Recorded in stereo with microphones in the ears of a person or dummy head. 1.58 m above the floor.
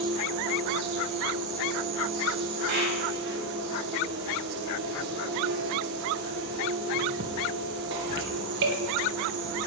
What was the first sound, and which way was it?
An insect, 60° right (ahead or behind).